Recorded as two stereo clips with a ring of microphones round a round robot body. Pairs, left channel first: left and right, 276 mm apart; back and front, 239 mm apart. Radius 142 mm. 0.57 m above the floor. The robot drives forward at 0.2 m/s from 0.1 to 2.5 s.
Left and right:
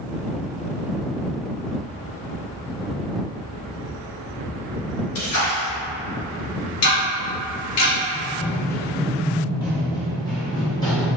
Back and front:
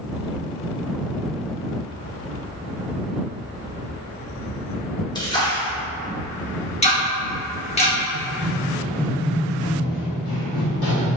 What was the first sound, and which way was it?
A splash, 110° left.